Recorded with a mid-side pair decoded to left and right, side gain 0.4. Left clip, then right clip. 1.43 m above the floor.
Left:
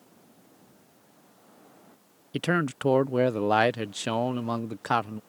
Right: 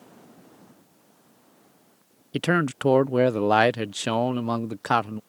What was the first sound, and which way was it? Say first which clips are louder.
A man speaking: right 3 dB; 25° right.